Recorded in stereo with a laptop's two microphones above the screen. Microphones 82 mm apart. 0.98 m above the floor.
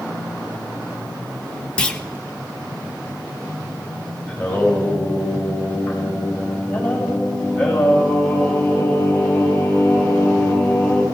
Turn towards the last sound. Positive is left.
turn(degrees=10)  # may be behind; listen again after turning